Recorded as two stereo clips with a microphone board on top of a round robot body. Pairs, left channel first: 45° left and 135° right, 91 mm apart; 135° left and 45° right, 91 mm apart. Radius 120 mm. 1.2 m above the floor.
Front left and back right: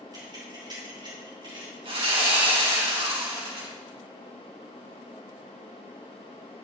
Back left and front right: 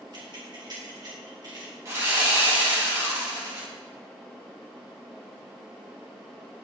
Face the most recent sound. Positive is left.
turn(degrees=-105)